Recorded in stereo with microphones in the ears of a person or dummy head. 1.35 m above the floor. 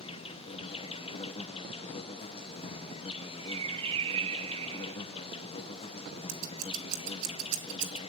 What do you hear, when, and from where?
0.0 s an insect: 30° left (ahead or behind), 0.8 m
3.5 s a bird: 25° right (ahead or behind), 0.7 m
6.3 s scissors: 70° right (ahead or behind), 2.5 m